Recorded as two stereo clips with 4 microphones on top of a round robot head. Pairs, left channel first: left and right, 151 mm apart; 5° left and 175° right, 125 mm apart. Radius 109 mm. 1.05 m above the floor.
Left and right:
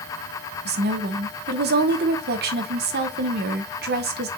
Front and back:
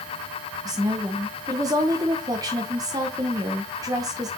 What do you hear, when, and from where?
0.7 s a woman speaking: 105° right, 0.7 m